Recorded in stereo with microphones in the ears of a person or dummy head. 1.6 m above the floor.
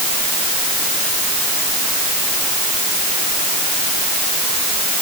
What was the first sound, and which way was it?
Only background noise.